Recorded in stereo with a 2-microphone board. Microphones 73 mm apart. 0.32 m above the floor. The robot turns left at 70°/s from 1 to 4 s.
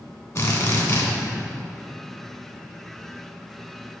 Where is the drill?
50° left (ahead or behind), 1.7 m; by 1.1 s 45° left (ahead or behind), 1.7 m.